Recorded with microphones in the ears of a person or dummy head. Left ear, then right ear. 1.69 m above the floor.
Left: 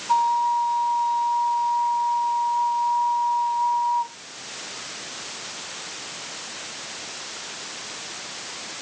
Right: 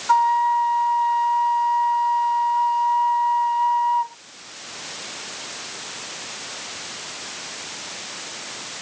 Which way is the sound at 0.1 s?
60° right (ahead or behind).